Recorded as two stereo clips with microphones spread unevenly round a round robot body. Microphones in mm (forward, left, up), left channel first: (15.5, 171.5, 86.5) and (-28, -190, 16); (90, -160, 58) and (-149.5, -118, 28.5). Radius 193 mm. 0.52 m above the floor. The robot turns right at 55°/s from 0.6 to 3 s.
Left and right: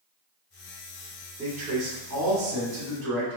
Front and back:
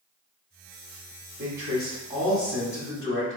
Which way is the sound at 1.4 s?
165° right.